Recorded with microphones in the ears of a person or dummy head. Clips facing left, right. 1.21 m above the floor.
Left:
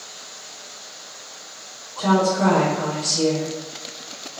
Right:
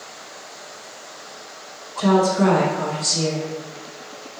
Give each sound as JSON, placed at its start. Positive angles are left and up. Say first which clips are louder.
{"t": 2.0, "sound": "a woman speaking", "louder": "right 2 dB", "side_deg": -70, "distance_m": 1.5}